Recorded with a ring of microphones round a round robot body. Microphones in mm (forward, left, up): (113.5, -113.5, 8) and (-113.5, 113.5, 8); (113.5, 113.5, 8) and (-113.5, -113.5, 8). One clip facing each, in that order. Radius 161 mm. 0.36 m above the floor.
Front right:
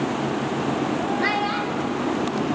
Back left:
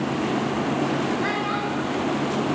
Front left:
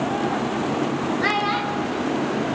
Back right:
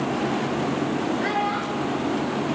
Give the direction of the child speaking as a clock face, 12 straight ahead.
12 o'clock.